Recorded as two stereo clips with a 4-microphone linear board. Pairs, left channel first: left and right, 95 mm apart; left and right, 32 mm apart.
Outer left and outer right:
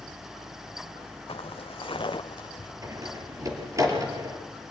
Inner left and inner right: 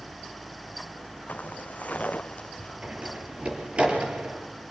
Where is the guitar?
I don't hear a guitar.